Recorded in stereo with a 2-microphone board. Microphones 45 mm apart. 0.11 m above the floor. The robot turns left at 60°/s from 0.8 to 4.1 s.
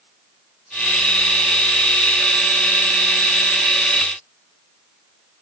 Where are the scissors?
I don't hear scissors.